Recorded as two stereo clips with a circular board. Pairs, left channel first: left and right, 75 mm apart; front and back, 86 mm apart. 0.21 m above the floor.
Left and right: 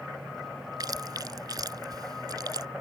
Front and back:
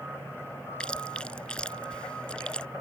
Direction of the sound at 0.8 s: 75° right.